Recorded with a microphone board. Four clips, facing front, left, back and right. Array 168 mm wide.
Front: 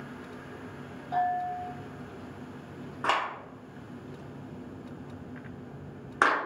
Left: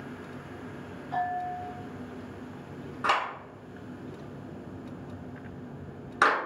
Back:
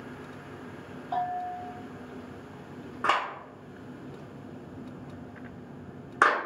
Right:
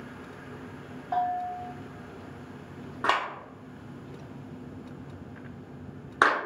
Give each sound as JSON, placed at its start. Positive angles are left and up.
{"t": 1.1, "sound": "a bell", "azimuth_deg": -115, "distance_m": 0.7}
{"t": 3.0, "sound": "a clap", "azimuth_deg": -85, "distance_m": 0.8}